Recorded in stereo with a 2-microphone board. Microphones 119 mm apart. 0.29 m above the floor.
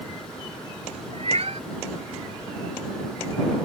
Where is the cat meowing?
60° right (ahead or behind).